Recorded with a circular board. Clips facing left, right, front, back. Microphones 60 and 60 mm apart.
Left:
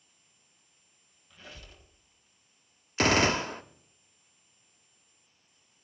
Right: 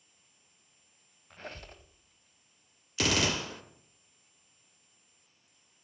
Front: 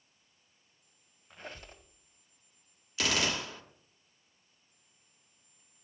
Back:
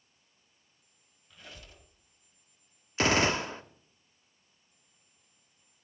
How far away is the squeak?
About 1.2 m.